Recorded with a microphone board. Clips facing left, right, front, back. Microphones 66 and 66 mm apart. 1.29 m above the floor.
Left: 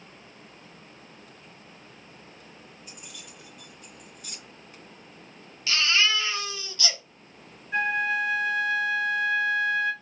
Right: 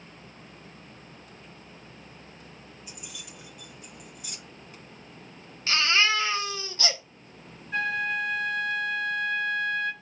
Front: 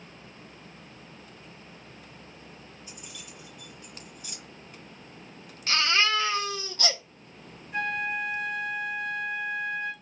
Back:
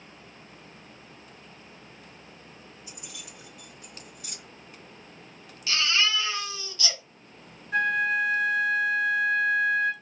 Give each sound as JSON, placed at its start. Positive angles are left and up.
{"t": 2.9, "sound": "keys jangling", "azimuth_deg": -175, "distance_m": 3.0}
{"t": 5.7, "sound": "a baby crying", "azimuth_deg": -40, "distance_m": 0.9}
{"t": 7.7, "sound": "a flute", "azimuth_deg": 170, "distance_m": 3.5}